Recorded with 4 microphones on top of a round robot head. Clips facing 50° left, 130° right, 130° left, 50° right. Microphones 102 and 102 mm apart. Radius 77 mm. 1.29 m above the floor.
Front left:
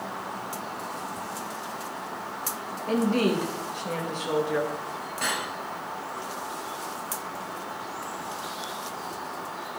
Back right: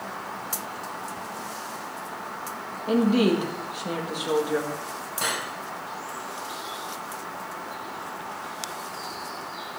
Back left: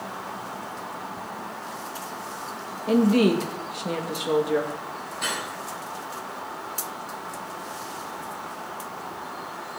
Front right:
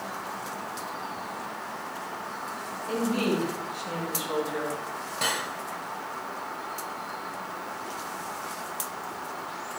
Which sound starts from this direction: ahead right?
Cutlery clinking, at 5.2 s.